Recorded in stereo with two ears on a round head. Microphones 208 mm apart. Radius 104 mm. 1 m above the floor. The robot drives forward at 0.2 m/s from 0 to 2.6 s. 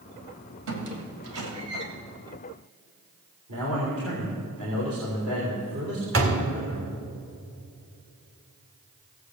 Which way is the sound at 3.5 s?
80° right.